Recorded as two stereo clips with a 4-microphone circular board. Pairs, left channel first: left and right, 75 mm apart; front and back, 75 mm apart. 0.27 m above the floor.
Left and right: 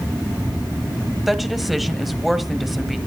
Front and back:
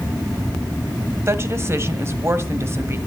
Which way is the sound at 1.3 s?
Straight behind.